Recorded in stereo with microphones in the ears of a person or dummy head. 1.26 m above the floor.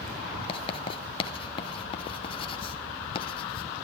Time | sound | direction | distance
0.5 | writing | 30° left (ahead or behind) | 2 m